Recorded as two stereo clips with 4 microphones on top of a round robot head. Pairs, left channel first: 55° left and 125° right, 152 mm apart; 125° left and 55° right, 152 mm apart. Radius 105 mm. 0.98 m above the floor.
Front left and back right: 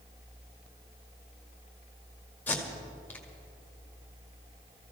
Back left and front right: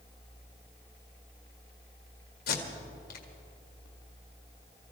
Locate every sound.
2.5 s tape being pulled: 130° left, 2 m